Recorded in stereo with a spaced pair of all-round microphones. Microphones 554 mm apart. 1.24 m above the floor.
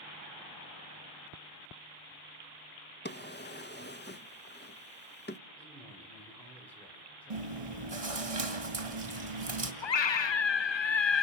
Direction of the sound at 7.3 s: 85° right.